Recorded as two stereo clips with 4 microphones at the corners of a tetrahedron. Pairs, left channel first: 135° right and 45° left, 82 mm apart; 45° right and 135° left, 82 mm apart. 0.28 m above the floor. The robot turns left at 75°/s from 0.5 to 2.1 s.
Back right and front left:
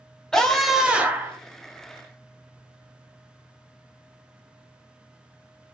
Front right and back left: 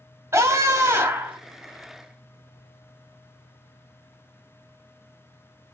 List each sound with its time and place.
0.3 s a scream: 145° left, 1.5 m; by 1.4 s 80° left, 1.5 m